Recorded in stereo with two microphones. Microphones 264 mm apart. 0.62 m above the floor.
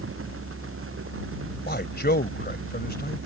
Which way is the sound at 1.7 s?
40° left (ahead or behind).